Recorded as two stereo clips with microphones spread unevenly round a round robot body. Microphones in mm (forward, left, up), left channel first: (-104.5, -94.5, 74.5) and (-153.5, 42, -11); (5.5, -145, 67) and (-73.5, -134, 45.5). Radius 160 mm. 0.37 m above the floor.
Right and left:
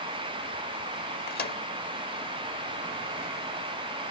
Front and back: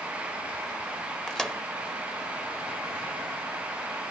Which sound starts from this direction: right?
A microwave, at 1.3 s.